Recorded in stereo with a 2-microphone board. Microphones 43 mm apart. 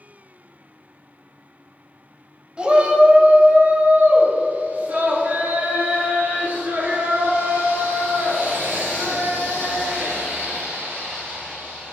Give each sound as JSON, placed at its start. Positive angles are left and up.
{"t": 2.6, "sound": "a shout", "side_deg": -25, "distance_m": 1.0}